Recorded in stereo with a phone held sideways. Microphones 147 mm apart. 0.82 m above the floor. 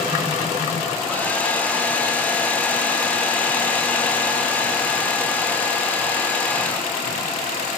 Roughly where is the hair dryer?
Centre.